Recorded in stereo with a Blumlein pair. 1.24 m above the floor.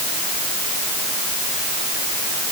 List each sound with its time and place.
Only background noise.